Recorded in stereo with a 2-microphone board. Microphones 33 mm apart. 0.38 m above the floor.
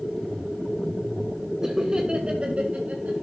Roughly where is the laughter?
Centre.